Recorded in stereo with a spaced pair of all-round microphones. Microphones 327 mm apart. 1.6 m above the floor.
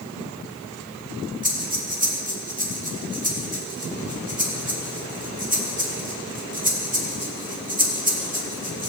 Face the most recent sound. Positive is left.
turn(degrees=-25)  # may be behind; listen again after turning